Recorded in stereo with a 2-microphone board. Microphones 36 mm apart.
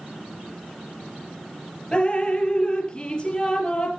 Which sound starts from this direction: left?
Dripping, at 1.9 s.